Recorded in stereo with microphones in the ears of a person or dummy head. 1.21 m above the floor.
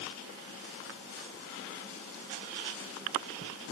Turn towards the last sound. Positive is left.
No sound to turn to.